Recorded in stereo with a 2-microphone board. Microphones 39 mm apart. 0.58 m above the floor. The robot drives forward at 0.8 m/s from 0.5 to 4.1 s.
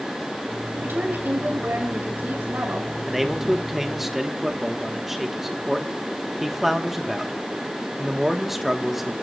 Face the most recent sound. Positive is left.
turn(degrees=-10)  # may be behind; listen again after turning